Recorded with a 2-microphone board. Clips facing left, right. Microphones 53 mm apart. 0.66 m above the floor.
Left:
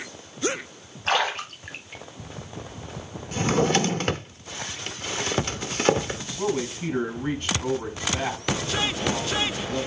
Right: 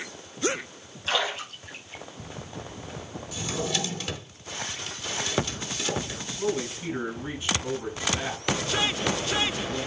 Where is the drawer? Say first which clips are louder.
Left 9 dB; 50° left (ahead or behind), 0.7 m.